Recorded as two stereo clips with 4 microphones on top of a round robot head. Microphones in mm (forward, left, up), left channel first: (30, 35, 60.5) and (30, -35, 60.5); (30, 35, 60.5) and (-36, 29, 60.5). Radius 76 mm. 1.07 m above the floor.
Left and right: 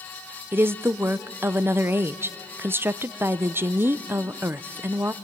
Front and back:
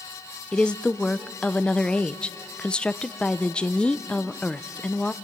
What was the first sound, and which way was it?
A woman speaking, 60° right.